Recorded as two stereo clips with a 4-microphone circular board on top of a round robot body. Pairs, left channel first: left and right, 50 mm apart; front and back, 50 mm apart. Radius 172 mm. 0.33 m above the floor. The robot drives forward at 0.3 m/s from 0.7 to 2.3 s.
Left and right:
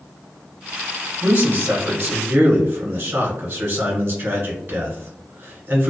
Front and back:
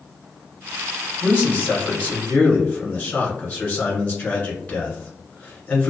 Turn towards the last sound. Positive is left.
turn(degrees=-55)